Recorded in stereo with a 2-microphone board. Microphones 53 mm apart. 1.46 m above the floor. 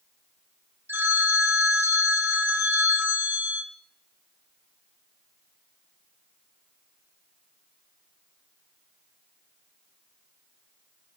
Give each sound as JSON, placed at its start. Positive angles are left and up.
{"t": 0.9, "sound": "a phone ringing", "side_deg": -40, "distance_m": 0.8}